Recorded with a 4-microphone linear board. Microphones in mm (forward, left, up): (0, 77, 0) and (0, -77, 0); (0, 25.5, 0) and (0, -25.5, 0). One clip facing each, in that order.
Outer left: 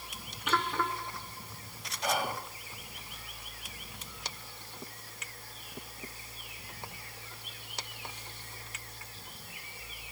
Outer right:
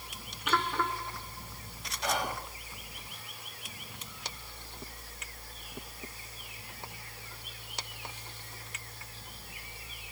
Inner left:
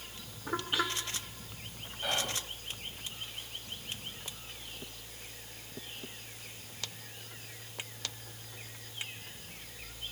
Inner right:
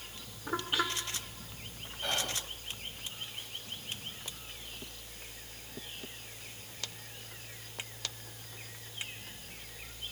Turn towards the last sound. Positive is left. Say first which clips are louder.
# outer left 1 dB, inner left 1 dB
turn(degrees=5)  # may be behind; listen again after turning